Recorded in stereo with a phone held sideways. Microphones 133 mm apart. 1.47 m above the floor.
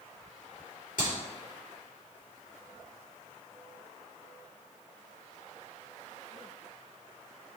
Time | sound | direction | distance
1.0 | a clap | 80° left | 4.5 m